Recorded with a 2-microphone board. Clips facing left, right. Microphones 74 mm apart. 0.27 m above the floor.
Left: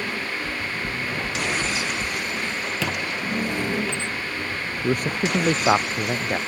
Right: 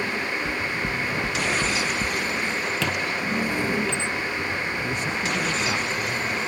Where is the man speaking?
55° left (ahead or behind).